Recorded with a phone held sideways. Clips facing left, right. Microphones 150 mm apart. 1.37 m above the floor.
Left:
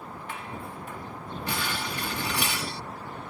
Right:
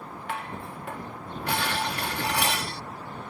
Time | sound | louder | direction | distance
0.3 | dishes clattering | right 4 dB | 70° right (ahead or behind) | ?